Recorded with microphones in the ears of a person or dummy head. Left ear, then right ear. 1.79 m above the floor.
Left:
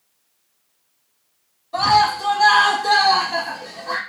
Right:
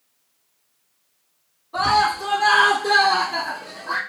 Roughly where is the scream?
Left.